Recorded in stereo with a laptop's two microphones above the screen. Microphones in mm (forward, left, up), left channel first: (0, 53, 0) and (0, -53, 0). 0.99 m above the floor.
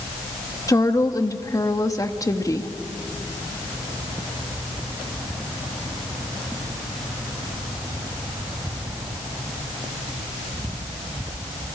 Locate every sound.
0.7 s a woman speaking: 30° left (ahead or behind), 1.7 m